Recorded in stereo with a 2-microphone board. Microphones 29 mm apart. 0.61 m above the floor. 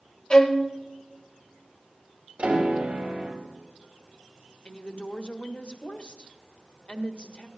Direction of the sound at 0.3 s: 35° left (ahead or behind).